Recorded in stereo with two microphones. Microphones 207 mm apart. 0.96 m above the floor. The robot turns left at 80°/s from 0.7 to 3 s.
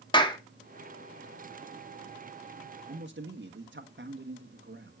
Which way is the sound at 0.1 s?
20° left (ahead or behind).